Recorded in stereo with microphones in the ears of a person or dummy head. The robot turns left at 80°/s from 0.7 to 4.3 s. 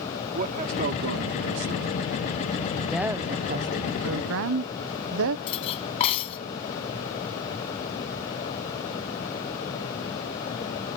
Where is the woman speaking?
5° left; by 5.4 s 110° right.